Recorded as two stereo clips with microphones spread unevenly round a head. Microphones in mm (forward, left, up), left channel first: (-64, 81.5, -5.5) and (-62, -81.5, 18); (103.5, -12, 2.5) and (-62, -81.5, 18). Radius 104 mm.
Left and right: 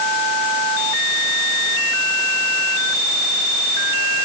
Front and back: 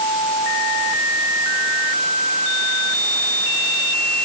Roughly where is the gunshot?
No gunshot in this recording.